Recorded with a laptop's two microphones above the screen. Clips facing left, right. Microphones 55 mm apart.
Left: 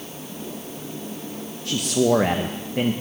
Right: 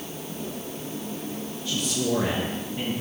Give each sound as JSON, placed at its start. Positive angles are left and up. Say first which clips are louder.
{"t": 1.6, "sound": "a man speaking", "louder": "left 7 dB", "side_deg": 55, "distance_m": 0.8}